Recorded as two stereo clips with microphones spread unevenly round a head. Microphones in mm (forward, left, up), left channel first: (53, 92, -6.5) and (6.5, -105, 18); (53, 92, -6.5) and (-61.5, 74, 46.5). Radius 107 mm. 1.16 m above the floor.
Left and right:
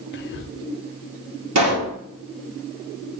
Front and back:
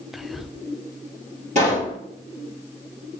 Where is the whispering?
85° left, 0.6 m.